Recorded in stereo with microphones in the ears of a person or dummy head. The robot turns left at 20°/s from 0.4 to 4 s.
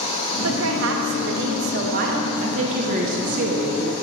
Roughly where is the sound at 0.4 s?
Right.